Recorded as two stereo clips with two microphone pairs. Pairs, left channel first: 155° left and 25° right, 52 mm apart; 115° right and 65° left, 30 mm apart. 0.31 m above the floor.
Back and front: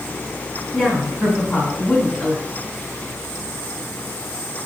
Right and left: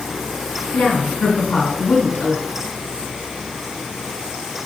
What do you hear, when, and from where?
0.7 s a woman speaking: 115° right, 1.9 m